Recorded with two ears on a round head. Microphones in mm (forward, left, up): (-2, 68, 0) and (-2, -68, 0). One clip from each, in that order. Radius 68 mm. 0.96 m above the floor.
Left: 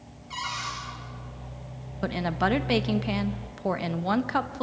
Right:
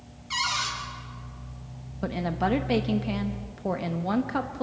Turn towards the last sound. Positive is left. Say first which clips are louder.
# left 1 dB
turn(degrees=35)  # may be behind; listen again after turning